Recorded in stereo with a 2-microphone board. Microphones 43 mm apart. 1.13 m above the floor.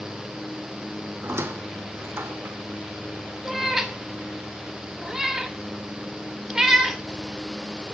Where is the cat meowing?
10° right (ahead or behind), 0.8 m.